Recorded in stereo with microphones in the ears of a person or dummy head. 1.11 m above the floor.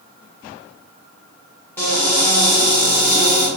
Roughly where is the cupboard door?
Centre.